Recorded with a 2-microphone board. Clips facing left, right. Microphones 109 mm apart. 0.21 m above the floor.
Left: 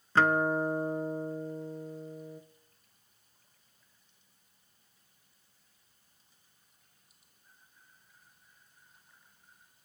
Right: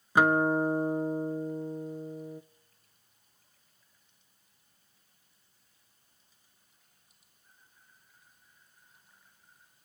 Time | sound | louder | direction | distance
0.1 | a guitar | right 2 dB | 15° right (ahead or behind) | 0.6 m